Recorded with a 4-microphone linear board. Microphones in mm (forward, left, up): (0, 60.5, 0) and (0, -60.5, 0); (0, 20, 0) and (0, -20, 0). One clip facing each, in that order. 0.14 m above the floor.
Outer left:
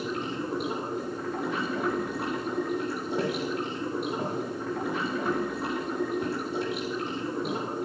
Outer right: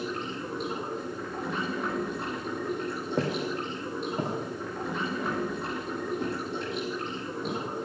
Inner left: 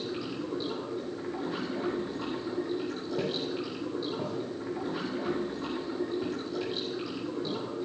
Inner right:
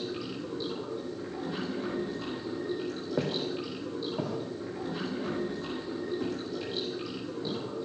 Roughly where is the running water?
Centre.